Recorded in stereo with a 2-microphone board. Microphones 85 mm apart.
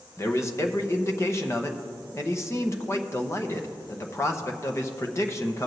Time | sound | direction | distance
0.2 | a man speaking | 35° left (ahead or behind) | 0.8 m